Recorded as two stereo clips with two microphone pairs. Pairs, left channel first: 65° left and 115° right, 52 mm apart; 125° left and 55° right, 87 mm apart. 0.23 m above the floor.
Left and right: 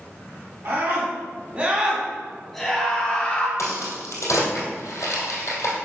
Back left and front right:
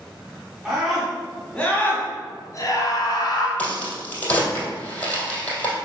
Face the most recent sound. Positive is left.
turn(degrees=55)